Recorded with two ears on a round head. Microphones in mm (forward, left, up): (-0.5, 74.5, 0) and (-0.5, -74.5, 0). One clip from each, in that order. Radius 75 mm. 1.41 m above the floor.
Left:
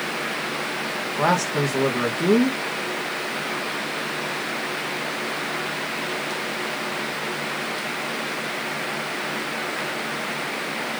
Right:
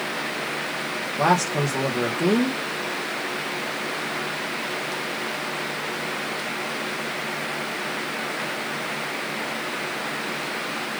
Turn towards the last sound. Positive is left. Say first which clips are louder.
# right 1 dB
turn(degrees=0)  # may be behind; listen again after turning